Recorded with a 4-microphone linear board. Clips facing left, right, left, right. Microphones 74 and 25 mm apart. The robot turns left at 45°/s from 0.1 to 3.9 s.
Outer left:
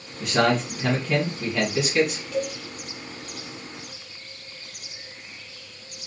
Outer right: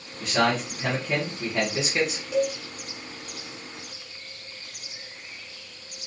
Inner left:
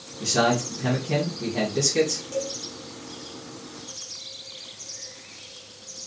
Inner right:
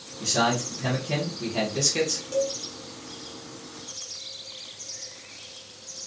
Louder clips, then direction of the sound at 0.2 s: Outer left 2 dB, inner left 2 dB; 5° left (ahead or behind).